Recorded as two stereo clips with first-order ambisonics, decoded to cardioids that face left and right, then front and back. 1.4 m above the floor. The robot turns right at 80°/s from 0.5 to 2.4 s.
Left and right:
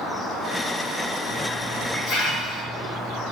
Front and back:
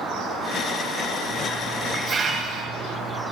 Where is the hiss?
50° left, 5 m; by 3.2 s 140° left, 5 m.